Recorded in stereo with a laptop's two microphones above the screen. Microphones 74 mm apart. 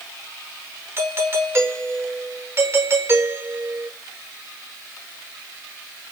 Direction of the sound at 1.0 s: 35° right (ahead or behind).